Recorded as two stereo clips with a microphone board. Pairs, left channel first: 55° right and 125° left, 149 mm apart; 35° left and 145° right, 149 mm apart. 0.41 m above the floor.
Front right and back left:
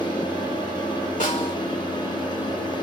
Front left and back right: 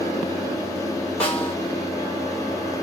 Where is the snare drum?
45° right, 1.8 m.